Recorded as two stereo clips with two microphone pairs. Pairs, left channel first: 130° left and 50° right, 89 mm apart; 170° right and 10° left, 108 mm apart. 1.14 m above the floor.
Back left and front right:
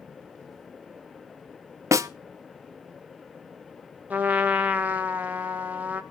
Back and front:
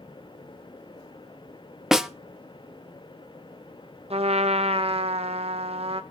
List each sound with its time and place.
1.9 s a snare drum: 70° right, 0.6 m
4.1 s a trumpet: 20° left, 0.9 m